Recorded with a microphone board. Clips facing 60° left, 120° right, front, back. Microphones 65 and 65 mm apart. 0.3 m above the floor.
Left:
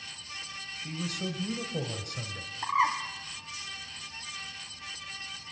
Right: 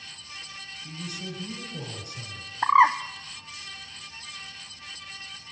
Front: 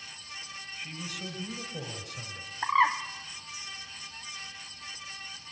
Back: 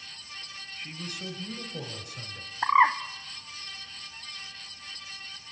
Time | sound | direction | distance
0.8 | a man speaking | 95° left | 3.5 m
2.6 | a bird | 115° right | 1.0 m